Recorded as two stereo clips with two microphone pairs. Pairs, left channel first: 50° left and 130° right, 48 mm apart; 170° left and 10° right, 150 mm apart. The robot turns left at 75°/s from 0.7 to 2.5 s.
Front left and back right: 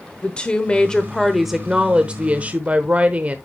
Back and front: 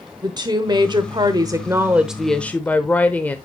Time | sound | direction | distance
0.2 | a woman speaking | 10° left | 0.9 m